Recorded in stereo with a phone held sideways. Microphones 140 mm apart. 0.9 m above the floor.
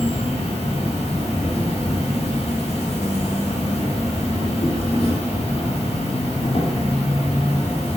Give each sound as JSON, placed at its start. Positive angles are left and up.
{"t": 0.0, "sound": "an insect", "side_deg": 45, "distance_m": 1.4}